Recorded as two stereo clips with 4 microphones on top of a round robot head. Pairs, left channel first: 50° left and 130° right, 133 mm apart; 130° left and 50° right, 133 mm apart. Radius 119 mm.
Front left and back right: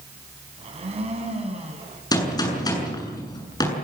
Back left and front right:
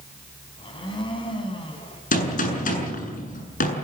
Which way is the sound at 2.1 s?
110° left.